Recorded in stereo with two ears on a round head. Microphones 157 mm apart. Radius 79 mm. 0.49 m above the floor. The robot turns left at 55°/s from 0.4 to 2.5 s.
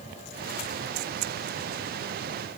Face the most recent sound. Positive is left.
No sound to turn to.